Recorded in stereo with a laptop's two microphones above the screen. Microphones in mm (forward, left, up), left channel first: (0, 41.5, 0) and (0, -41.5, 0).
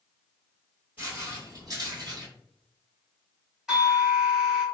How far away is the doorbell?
About 1.6 m.